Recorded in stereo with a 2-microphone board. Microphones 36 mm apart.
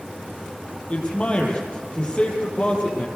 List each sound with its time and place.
0.9 s a man speaking: 35° left (ahead or behind), 6.5 m